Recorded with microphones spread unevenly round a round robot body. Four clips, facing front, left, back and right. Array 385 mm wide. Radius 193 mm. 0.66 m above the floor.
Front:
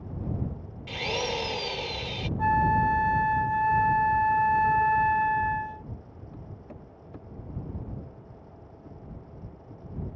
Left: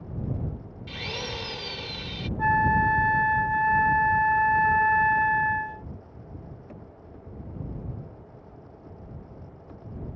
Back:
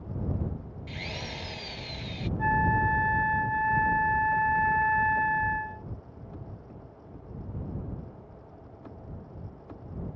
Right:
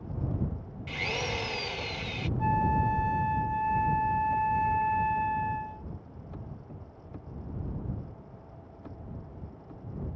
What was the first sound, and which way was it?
A drill, 15° right.